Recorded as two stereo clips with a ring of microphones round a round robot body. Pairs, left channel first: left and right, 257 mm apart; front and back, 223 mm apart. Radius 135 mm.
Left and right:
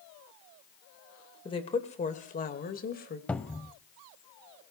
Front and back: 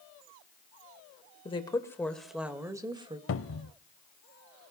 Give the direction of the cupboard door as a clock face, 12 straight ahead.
12 o'clock.